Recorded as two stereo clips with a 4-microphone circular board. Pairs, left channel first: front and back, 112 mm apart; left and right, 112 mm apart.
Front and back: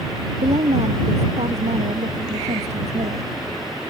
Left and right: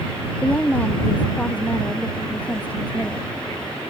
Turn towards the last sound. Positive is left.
turn(degrees=165)